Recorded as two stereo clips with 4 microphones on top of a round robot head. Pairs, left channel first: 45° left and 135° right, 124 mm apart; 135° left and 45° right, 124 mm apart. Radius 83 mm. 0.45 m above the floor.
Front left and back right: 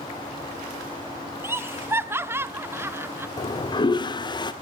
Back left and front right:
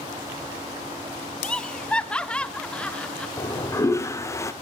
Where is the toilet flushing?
80° left, 1.4 m.